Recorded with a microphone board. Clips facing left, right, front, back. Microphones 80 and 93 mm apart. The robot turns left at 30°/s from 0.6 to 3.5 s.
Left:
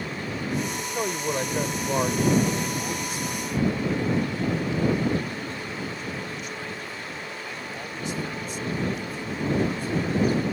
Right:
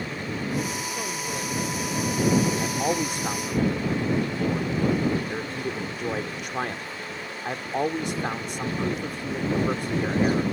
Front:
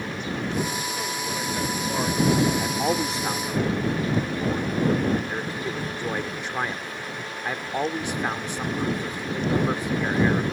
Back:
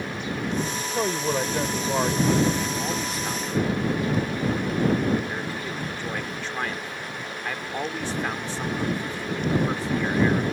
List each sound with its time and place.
0.8 s a man speaking: 150° left; by 2.7 s 90° left
2.6 s a man speaking: 45° right; by 10.4 s 70° right